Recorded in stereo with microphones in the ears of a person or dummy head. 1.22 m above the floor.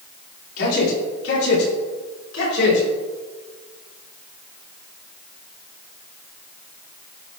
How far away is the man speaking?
About 3 m.